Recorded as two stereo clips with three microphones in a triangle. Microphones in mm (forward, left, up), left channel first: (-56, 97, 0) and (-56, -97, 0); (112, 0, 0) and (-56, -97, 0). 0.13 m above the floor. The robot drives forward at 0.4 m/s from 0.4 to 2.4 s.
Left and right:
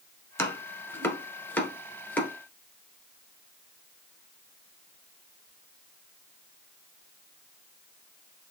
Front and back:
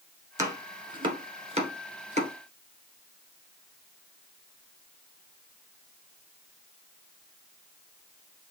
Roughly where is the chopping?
Behind left.